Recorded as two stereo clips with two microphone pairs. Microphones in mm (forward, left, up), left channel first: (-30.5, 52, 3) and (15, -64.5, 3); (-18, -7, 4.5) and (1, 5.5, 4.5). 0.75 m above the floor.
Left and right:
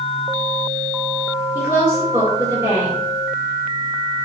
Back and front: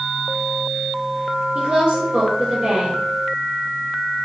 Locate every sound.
1.6 s a woman speaking: straight ahead, 2.5 m